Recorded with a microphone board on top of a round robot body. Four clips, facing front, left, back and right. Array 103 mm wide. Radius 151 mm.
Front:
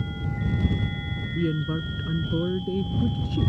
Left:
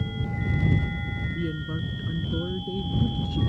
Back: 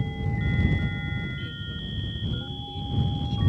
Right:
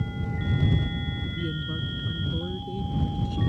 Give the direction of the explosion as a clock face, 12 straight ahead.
No explosion in this recording.